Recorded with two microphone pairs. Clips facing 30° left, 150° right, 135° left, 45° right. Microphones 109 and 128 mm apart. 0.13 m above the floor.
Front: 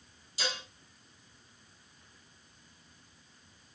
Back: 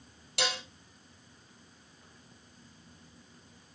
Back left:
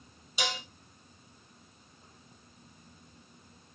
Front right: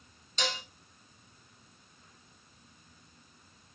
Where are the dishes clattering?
145° right, 2.5 m.